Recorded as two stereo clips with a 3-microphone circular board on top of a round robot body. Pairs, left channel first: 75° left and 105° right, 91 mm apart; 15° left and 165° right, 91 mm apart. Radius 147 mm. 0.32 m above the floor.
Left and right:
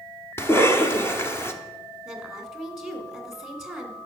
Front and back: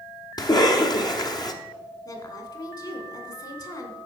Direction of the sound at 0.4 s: 20° left.